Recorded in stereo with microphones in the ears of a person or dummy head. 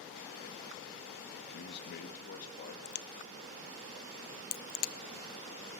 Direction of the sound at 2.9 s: 45° left (ahead or behind).